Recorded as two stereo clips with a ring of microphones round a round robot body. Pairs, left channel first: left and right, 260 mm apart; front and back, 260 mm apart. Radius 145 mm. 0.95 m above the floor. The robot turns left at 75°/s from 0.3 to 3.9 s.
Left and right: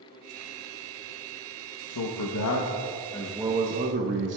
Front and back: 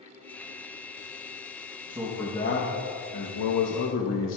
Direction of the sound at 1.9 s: 105° left.